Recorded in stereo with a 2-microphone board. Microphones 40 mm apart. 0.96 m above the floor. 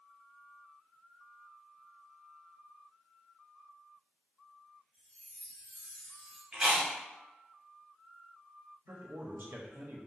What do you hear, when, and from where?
4.9 s a chime: 15° right (ahead or behind), 1.1 m
6.5 s chewing: 15° right (ahead or behind), 0.7 m
8.9 s a man speaking: 60° right (ahead or behind), 0.6 m